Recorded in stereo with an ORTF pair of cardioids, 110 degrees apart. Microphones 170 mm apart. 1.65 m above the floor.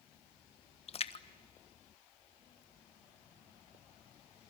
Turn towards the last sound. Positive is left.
turn(degrees=35)